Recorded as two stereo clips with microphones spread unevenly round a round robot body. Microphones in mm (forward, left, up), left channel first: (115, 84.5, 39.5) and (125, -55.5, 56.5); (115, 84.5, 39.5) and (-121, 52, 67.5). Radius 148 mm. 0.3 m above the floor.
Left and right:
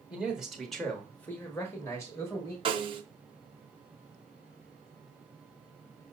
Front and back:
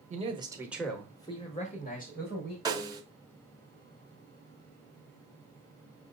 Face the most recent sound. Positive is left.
turn(degrees=-100)